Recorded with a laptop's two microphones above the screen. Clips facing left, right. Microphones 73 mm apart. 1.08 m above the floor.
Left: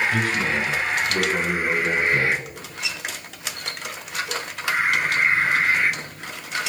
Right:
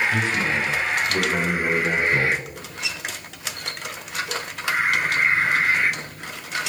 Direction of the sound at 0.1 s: 20° right (ahead or behind).